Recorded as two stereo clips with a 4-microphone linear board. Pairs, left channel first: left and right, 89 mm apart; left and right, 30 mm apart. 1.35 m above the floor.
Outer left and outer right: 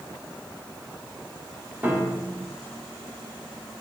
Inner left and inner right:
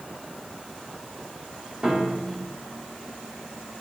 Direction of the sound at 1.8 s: 15° right (ahead or behind).